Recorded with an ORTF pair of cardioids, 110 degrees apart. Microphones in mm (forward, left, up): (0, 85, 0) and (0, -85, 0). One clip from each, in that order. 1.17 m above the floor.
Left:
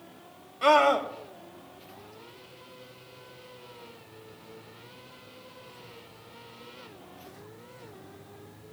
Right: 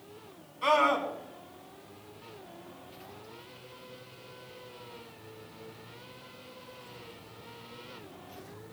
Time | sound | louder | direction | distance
0.6 | a scream | left 4 dB | 60° left | 2.5 m